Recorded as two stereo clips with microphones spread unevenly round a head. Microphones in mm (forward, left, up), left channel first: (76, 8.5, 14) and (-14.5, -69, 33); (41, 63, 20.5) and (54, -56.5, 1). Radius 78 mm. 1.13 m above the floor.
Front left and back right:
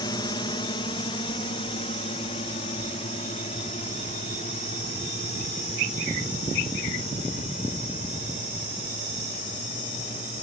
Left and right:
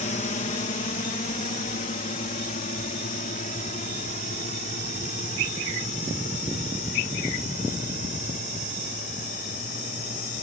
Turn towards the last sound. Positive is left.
turn(degrees=90)